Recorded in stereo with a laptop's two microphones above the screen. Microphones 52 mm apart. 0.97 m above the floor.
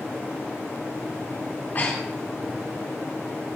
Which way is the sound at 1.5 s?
40° left (ahead or behind).